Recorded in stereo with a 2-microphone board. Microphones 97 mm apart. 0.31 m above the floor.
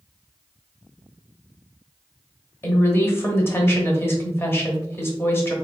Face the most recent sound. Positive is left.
turn(degrees=25)  # may be behind; listen again after turning